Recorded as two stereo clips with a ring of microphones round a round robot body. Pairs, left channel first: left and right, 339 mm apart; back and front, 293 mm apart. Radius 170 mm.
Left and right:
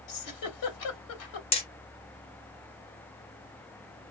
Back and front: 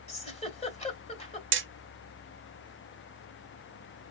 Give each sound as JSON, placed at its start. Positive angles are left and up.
{"t": 0.1, "sound": "a giggle", "azimuth_deg": 110, "distance_m": 1.9}
{"t": 1.5, "sound": "hammering", "azimuth_deg": 25, "distance_m": 0.9}